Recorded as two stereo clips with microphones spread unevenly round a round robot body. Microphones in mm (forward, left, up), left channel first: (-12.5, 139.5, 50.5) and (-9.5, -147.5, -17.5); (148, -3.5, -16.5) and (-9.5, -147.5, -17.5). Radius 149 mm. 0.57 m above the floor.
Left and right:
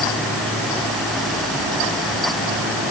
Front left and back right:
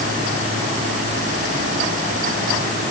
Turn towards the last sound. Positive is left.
No sound to turn to.